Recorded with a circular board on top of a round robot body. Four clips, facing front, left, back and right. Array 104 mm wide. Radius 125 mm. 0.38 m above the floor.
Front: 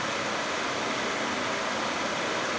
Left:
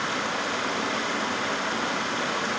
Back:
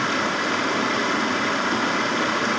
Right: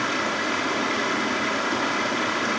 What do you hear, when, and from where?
0.0 s running water: 170° right, 4 m